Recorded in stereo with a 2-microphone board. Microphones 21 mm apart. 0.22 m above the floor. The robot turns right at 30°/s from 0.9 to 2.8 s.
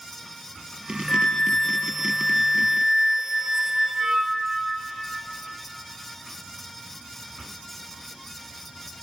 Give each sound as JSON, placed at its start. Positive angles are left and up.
{"t": 1.1, "sound": "a flute", "azimuth_deg": 155, "distance_m": 0.9}